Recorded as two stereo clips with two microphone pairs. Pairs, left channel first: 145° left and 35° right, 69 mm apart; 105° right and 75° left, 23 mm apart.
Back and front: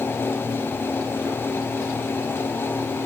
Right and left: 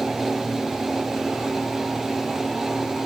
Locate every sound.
Only background noise.